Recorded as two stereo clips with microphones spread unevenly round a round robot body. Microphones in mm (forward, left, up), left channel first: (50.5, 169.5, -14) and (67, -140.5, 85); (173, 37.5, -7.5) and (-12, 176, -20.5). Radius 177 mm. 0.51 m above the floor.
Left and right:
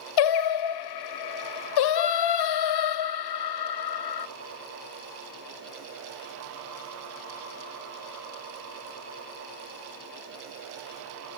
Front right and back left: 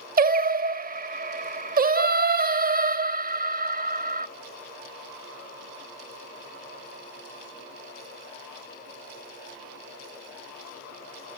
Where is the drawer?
I don't hear a drawer.